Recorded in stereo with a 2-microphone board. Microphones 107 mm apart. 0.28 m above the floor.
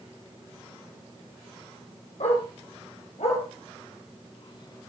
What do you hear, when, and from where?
2.2 s a dog barking: 85° left, 4.5 m; by 4.9 s 20° left (ahead or behind), 1.0 m